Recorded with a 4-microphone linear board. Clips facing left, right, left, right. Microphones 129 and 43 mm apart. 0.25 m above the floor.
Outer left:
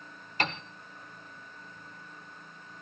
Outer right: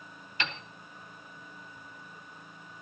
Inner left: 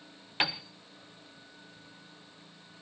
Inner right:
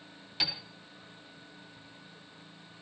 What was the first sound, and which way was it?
A piano, 40° left (ahead or behind).